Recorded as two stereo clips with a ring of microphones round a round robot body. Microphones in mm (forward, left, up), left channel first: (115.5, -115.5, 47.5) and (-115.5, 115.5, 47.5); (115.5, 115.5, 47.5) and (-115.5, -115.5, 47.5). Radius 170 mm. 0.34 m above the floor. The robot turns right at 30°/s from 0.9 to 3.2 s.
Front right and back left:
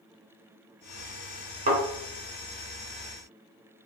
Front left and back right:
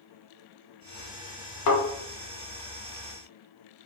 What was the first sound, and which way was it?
A thud, 65° left.